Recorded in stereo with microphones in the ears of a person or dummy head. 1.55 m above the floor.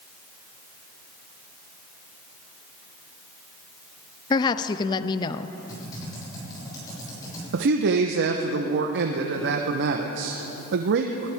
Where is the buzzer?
I don't hear a buzzer.